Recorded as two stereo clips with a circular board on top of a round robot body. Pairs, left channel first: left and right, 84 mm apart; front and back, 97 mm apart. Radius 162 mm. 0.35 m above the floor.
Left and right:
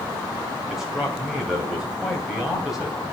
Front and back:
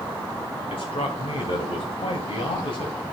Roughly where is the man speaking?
Ahead.